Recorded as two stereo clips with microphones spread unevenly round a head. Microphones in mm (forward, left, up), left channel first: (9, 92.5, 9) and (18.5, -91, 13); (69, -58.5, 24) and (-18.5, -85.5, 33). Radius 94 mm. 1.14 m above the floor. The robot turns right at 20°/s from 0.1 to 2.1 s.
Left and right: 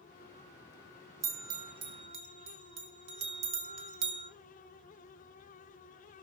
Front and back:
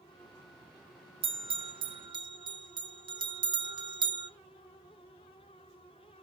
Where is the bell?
160° right, 2 m; by 4.3 s 140° right, 2 m.